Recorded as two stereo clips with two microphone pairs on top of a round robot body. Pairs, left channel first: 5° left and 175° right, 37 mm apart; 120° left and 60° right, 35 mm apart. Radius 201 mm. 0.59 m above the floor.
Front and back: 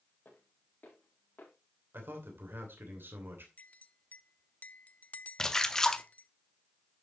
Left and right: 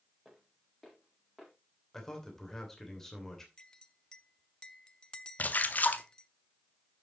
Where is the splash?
75° left, 0.8 m.